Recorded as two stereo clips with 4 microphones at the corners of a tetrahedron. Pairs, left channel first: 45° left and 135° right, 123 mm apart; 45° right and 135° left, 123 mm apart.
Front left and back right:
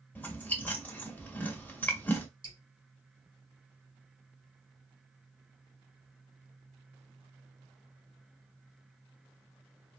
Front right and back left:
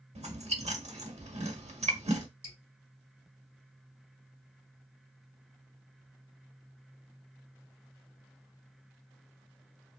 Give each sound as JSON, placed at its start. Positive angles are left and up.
{"t": 0.1, "sound": "chewing", "azimuth_deg": 120, "distance_m": 0.7}
{"t": 2.4, "sound": "dripping", "azimuth_deg": -110, "distance_m": 1.3}